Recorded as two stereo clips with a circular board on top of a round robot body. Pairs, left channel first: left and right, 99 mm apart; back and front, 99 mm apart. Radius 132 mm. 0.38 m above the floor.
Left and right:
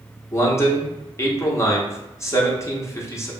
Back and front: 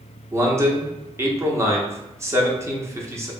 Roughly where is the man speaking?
Ahead left.